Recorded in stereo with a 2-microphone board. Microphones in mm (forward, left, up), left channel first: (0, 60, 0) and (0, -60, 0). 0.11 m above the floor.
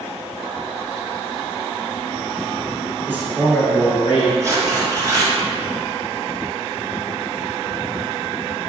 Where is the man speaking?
20° right (ahead or behind), 1.3 m; by 4.3 s 50° left (ahead or behind), 1.9 m.